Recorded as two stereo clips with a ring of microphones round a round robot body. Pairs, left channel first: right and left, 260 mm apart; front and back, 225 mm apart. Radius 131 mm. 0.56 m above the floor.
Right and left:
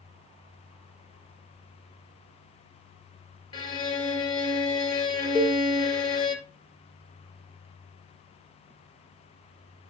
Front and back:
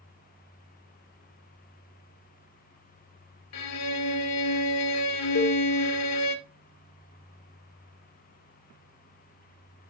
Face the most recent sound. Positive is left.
turn(degrees=-10)